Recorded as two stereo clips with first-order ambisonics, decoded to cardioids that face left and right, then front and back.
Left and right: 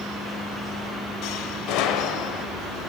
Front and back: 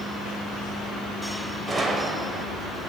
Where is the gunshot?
105° left, 0.8 m.